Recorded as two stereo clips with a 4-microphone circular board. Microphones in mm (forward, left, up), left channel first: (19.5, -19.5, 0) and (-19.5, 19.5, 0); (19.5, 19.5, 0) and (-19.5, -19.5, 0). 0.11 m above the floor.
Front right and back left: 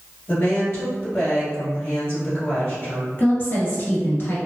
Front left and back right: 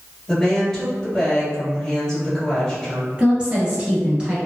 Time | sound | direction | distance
0.3 | a woman speaking | 35° right | 1.8 m
3.2 | a woman speaking | 70° right | 1.7 m